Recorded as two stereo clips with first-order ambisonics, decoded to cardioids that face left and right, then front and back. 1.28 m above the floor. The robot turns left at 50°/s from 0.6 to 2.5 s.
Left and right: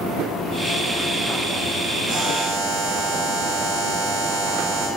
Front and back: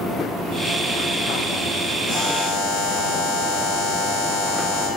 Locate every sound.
2.1 s a buzzer: 50° right, 3.5 m; by 4.9 s 75° right, 3.5 m